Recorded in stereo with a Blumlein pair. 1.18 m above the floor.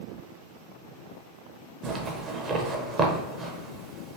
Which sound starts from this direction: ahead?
A zipper, at 1.8 s.